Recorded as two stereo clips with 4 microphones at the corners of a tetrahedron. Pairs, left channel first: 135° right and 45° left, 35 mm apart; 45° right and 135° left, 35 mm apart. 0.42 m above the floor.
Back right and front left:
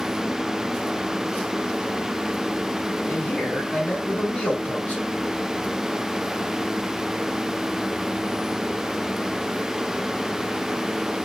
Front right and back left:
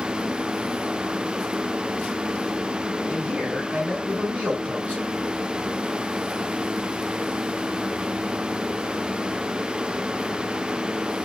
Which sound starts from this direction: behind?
A man speaking, at 3.1 s.